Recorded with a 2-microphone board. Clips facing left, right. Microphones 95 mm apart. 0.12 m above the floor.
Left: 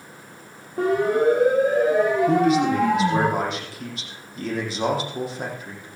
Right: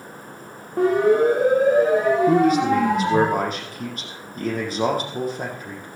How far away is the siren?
About 7.5 m.